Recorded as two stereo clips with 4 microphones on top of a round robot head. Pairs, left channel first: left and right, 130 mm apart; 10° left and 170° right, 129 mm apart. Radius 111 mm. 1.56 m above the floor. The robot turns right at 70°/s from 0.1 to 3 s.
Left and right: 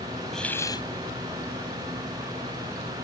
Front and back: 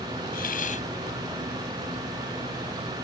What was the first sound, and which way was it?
A hiss, straight ahead.